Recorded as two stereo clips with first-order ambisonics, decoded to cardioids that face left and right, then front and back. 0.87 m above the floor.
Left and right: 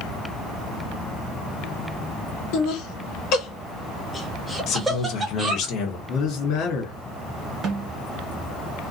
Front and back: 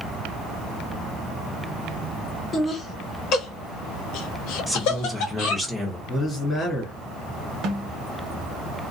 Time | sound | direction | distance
2.5 | laughter | 75° left | 1.0 m
4.7 | a man speaking | 90° left | 1.0 m
6.1 | a man speaking | 75° left | 1.7 m
7.6 | a snare drum | 145° right | 0.9 m